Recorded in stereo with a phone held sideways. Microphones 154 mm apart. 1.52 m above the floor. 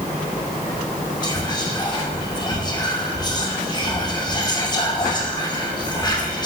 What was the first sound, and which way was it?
Whispering, 30° left (ahead or behind).